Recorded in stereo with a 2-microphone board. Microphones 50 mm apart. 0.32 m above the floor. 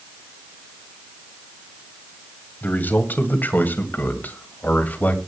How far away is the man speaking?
About 2 m.